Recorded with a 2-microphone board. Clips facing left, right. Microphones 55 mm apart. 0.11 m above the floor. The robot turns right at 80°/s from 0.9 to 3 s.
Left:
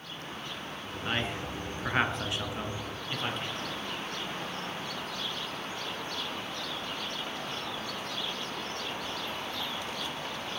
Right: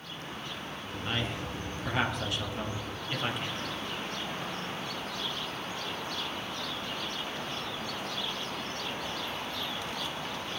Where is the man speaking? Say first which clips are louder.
Left 2 dB; 20° left (ahead or behind), 1.6 m; by 3.5 s 5° right (ahead or behind), 1.6 m.